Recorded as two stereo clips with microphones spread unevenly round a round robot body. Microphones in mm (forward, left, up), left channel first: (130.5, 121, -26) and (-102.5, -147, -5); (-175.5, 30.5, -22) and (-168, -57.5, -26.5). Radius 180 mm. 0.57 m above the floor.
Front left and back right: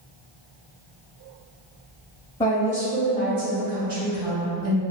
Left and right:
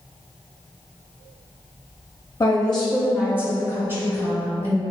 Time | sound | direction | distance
2.4 | a woman speaking | 110° left | 0.9 m